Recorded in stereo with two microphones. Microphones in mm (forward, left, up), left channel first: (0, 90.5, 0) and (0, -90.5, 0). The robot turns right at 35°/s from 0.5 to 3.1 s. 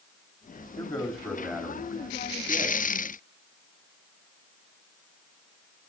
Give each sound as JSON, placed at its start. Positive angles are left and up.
{"t": 0.8, "sound": "a man speaking", "azimuth_deg": 145, "distance_m": 2.0}